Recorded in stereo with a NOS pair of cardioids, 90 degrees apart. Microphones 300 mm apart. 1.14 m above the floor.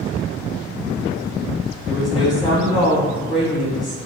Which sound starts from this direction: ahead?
A woman speaking, at 1.9 s.